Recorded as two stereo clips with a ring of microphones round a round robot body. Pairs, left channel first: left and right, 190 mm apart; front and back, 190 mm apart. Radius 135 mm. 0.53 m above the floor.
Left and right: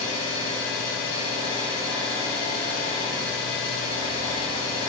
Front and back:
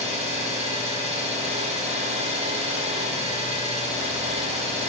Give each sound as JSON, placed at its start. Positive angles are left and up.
{"t": 0.0, "sound": "an engine running", "azimuth_deg": 125, "distance_m": 0.9}